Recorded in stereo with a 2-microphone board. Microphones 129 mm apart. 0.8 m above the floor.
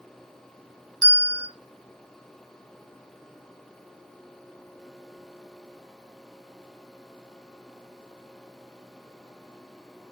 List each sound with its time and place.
1.0 s a bell: 35° right (ahead or behind), 1.0 m